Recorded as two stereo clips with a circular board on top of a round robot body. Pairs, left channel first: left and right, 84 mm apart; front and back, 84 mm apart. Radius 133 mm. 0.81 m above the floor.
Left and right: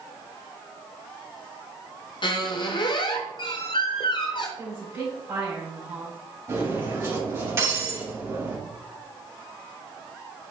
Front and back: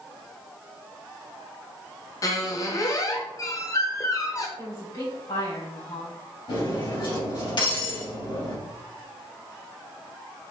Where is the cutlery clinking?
30° right, 4 m.